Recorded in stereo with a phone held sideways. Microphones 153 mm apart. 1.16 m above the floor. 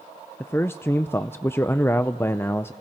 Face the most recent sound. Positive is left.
turn(degrees=15)  # may be behind; listen again after turning